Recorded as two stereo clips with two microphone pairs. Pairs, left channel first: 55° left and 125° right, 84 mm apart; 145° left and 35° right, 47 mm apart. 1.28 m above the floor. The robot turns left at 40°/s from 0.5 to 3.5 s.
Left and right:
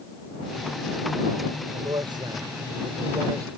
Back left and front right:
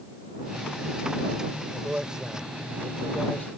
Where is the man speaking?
95° right; by 3.5 s 165° right.